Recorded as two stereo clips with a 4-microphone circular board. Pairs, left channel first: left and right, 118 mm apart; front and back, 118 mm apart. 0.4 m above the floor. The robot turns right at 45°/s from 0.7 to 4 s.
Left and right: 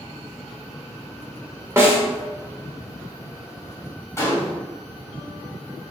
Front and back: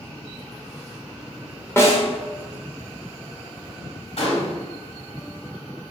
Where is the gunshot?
25° left, 1.2 m.